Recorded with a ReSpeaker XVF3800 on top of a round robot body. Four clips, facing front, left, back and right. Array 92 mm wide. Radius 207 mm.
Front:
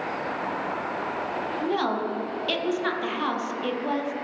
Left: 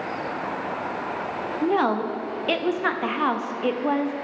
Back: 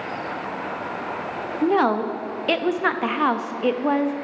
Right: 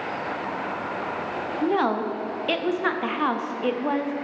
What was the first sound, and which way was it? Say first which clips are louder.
A woman speaking: left 1 dB, back 8 dB; 175° left.